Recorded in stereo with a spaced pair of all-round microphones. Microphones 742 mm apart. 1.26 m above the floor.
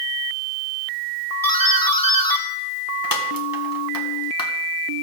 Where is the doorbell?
30° left (ahead or behind), 1.2 m.